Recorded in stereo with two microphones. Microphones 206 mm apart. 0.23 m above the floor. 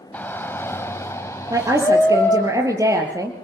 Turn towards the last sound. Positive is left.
turn(degrees=-15)  # may be behind; listen again after turning